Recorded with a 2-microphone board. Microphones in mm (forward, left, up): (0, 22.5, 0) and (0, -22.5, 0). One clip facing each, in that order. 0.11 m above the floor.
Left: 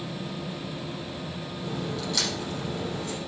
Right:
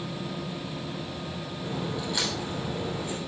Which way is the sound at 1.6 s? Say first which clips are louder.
Even; 20° right (ahead or behind).